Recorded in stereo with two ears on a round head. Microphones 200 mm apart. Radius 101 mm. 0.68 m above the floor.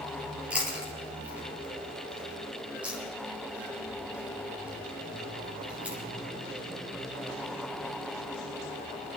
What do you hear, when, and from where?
0.5 s chewing: 5° right (ahead or behind), 3 m